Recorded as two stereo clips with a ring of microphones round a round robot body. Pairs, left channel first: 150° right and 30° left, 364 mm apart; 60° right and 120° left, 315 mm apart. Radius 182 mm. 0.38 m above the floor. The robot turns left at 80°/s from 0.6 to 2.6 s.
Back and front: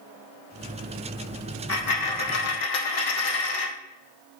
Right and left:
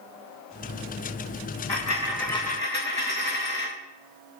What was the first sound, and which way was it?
A dropped coin, 95° right.